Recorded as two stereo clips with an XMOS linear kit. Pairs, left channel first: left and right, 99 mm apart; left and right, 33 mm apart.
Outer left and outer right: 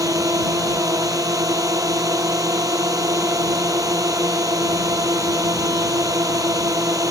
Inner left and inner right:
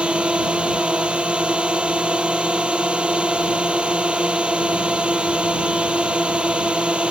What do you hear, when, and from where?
0.0 s a drone: 35° right (ahead or behind)